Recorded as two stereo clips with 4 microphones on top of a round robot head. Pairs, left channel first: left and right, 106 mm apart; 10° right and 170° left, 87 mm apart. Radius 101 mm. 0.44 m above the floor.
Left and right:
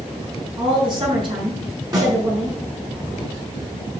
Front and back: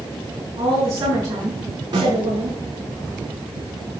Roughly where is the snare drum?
Behind right.